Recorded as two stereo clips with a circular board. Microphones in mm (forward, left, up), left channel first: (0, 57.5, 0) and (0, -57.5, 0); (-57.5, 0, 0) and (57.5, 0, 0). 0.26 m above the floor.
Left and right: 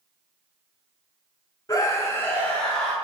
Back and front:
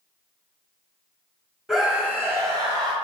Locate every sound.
1.7 s a scream: 90° left, 1.2 m; by 2.9 s 5° left, 1.3 m